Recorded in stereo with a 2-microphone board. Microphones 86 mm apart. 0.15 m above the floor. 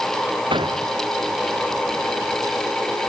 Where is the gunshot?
80° right.